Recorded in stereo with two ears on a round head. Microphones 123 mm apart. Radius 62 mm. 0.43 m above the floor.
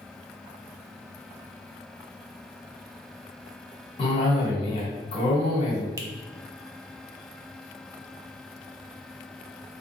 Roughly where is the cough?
Left.